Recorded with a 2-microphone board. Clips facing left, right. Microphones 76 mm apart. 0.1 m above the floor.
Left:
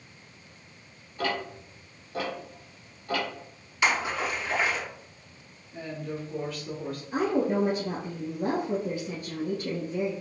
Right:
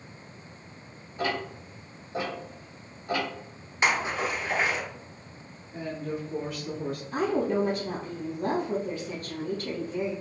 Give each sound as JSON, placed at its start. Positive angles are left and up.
{"t": 1.2, "sound": "ticking", "side_deg": -20, "distance_m": 1.9}
{"t": 3.8, "sound": "a splash", "side_deg": -30, "distance_m": 1.5}
{"t": 5.7, "sound": "a woman speaking", "side_deg": -20, "distance_m": 1.5}
{"t": 7.1, "sound": "a woman speaking", "side_deg": 20, "distance_m": 1.7}